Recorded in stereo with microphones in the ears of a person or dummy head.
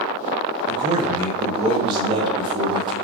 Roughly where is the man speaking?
Right.